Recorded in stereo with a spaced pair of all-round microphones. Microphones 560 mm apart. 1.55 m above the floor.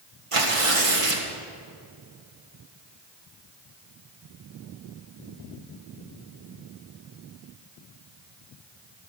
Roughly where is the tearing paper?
Right.